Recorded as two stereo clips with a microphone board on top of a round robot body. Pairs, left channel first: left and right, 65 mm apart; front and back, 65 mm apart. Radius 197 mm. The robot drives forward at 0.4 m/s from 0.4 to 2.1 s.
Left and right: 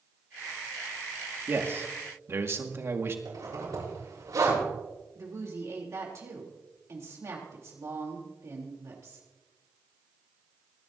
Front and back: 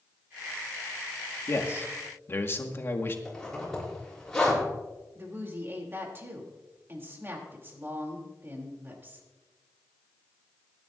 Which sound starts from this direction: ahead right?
A man speaking, at 1.5 s.